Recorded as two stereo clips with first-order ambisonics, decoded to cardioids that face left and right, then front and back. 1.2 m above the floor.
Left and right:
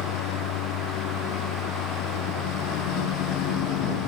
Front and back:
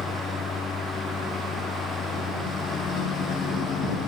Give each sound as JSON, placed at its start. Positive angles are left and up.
{"t": 0.0, "sound": "a lawn mower", "azimuth_deg": 70}